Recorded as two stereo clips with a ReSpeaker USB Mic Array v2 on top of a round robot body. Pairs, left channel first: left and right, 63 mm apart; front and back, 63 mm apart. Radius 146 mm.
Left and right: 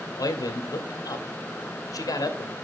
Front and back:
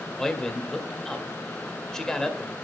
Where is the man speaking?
80° left, 1.8 m.